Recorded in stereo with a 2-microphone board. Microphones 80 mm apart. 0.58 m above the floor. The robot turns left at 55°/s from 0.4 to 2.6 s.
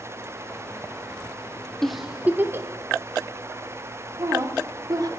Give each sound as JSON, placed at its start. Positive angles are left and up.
{"t": 1.8, "sound": "a giggle", "side_deg": 5, "distance_m": 0.7}
{"t": 4.2, "sound": "a woman speaking", "side_deg": -50, "distance_m": 1.3}